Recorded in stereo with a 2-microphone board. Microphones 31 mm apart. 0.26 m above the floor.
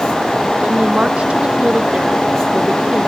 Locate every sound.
0.6 s a woman speaking: 45° right (ahead or behind); by 3.1 s 30° right (ahead or behind)